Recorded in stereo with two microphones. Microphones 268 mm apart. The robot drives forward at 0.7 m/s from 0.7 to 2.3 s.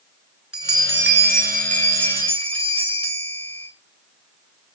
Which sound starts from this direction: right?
A bell, at 0.5 s.